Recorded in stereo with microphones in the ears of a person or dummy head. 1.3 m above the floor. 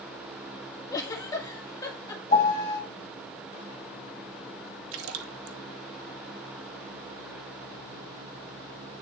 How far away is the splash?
About 0.8 m.